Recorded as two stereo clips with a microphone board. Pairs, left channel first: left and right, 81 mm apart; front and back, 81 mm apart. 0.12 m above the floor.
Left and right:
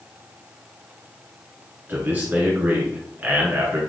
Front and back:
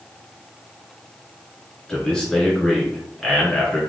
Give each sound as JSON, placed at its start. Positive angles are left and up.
{"t": 1.9, "sound": "a man speaking", "azimuth_deg": -65, "distance_m": 1.4}